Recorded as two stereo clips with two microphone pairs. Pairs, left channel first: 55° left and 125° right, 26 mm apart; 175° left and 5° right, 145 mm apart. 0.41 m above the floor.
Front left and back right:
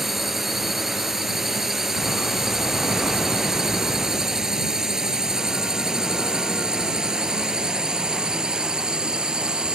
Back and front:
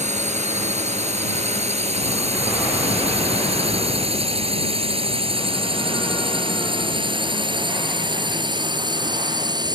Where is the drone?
45° right; by 9.8 s 70° right.